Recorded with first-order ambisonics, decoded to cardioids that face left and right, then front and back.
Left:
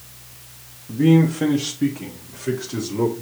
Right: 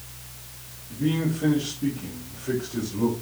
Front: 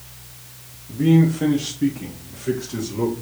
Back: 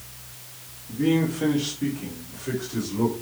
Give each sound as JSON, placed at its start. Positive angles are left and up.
{"t": 0.9, "sound": "a man speaking", "azimuth_deg": 85, "distance_m": 1.0}